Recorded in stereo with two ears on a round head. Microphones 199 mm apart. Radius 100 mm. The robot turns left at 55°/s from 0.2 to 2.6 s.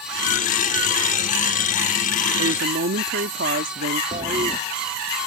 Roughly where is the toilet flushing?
Right.